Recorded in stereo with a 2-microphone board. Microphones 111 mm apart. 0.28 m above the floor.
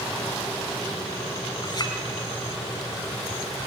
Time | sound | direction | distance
1.6 | a clink | 40° left (ahead or behind) | 1.9 m